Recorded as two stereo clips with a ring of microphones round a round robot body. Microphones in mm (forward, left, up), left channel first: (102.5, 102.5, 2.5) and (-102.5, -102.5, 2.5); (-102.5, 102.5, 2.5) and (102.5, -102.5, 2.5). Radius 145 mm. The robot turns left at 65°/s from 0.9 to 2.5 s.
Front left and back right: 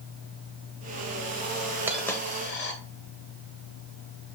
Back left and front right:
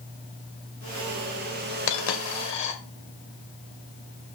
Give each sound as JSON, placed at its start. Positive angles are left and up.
{"t": 1.9, "sound": "a dropped coin", "azimuth_deg": 140, "distance_m": 1.9}